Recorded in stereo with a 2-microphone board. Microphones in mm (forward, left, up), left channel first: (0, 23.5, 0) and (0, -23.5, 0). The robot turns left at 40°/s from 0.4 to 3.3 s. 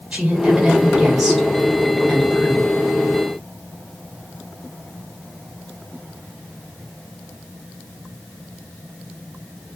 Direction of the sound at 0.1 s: 145° right.